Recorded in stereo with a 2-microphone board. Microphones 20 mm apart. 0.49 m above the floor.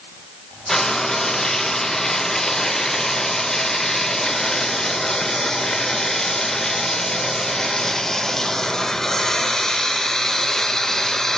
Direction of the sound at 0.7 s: 25° left (ahead or behind).